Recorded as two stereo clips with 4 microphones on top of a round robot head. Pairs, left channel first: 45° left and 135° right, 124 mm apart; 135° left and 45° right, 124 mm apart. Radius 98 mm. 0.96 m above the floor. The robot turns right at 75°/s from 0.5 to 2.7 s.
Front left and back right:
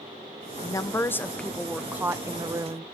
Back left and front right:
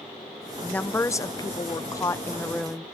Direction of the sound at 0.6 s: 60° left.